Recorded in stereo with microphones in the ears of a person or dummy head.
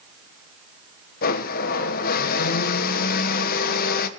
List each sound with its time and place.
1.2 s a blender: 45° left (ahead or behind), 1.5 m